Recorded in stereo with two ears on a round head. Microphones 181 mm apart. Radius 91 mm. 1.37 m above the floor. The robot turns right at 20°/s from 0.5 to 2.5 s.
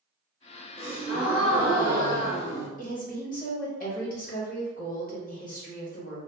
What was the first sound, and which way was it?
A gasp, 35° left.